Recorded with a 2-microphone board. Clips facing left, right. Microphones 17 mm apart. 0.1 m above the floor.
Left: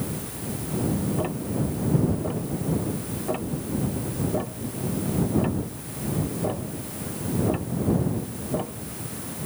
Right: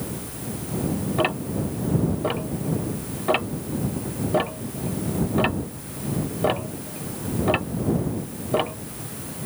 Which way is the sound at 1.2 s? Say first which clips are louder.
Right 3 dB; 65° right (ahead or behind).